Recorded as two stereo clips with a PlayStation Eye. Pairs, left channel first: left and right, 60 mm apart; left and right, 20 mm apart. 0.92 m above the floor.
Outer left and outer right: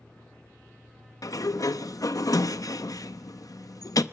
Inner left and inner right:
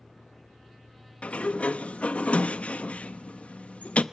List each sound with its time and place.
1.2 s a sliding door: 70° left (ahead or behind), 0.7 m